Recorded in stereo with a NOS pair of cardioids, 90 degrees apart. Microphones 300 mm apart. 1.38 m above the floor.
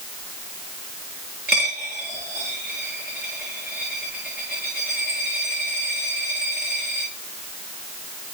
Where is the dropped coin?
35° right, 7 m.